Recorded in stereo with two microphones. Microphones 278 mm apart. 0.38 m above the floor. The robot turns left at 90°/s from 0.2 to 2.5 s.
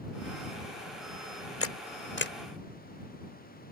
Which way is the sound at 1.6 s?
50° left (ahead or behind).